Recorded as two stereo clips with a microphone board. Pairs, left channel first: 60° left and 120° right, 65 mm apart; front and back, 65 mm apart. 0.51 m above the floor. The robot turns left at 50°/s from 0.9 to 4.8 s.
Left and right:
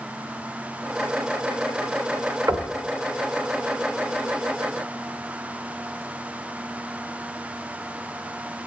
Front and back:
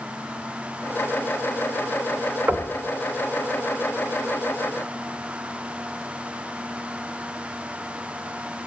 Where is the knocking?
135° right, 1.3 m; by 2.7 s 150° right, 1.3 m.